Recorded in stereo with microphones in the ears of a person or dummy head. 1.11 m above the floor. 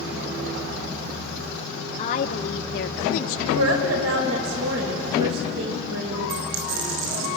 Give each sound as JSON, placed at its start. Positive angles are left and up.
{"t": 2.0, "sound": "a woman speaking", "side_deg": 30, "distance_m": 1.0}
{"t": 3.5, "sound": "a woman speaking", "side_deg": -75, "distance_m": 5.0}
{"t": 6.3, "sound": "a dropped coin", "side_deg": -80, "distance_m": 5.0}